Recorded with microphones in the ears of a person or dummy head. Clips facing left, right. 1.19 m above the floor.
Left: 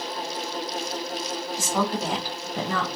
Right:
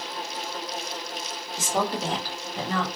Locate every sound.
1.6 s a woman speaking: 20° right (ahead or behind), 1.0 m; by 2.9 s 70° left (ahead or behind), 0.7 m